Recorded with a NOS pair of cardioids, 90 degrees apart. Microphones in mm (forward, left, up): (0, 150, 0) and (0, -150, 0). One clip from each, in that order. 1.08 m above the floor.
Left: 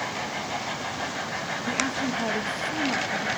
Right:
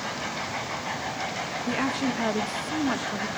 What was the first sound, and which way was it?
A woman speaking, 15° right.